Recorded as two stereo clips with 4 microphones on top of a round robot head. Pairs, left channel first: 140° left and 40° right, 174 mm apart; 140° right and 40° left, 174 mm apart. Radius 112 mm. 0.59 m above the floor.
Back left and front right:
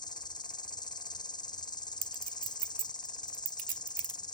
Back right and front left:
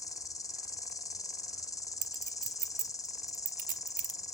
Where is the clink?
Straight ahead, 1.7 m.